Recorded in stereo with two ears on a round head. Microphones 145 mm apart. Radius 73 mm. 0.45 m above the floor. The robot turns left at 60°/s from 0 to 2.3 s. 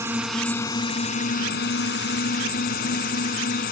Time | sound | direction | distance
0.0 | a drone | 160° right | ?